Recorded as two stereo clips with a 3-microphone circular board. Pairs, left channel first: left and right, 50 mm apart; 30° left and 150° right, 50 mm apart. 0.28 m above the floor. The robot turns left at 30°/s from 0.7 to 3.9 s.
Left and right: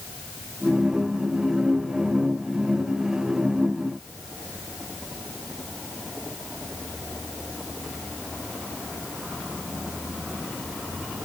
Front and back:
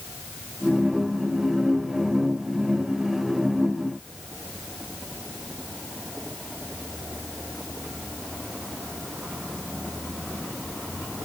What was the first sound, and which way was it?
Only background noise.